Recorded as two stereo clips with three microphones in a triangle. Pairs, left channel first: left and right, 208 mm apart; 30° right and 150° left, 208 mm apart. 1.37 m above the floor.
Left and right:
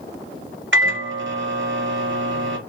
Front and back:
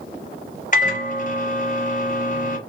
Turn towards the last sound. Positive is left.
turn(degrees=-80)